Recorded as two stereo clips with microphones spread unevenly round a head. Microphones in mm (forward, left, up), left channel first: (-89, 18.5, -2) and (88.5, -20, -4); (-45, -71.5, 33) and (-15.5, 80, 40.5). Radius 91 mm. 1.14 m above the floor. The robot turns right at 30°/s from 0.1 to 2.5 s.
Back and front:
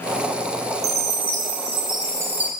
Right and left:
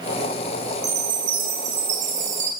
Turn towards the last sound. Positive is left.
turn(degrees=70)